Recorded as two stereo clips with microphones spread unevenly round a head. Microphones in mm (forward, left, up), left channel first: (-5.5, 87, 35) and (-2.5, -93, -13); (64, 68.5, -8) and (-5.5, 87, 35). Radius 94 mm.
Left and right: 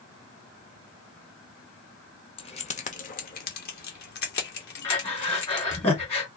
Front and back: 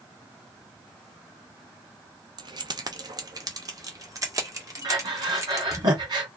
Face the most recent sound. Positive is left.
turn(degrees=150)